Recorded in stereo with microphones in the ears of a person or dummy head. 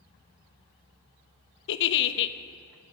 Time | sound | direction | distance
1.7 | a giggle | 60° left (ahead or behind) | 0.6 m